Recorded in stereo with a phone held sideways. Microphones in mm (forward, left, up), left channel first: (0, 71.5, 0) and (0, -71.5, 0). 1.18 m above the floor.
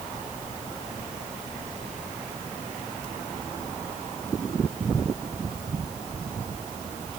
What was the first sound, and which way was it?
Only background noise.